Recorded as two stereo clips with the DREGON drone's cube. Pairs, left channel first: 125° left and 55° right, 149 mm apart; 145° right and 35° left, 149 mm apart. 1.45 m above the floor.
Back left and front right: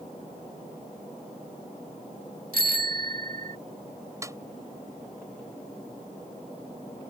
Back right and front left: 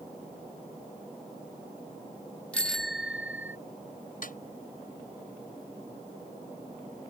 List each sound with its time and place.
2.5 s a bicycle bell: 65° right; by 3.6 s 40° right
4.2 s a snare drum: 125° right